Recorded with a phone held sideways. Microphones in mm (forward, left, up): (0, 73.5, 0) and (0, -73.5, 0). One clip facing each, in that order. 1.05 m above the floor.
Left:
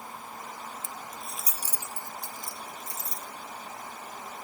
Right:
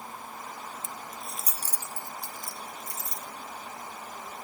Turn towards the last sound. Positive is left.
turn(degrees=25)  # may be behind; listen again after turning